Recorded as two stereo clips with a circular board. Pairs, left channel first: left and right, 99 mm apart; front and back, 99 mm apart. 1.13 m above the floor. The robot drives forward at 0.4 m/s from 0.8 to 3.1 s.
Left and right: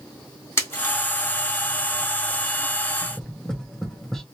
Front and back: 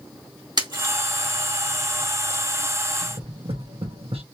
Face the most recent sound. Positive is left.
turn(degrees=175)